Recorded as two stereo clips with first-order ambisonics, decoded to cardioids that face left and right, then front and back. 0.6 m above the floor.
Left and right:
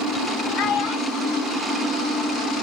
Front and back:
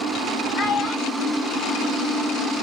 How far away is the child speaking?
About 2.5 m.